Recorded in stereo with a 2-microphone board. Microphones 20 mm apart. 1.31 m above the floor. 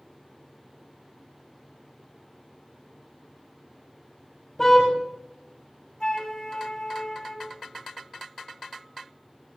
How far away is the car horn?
About 4.5 m.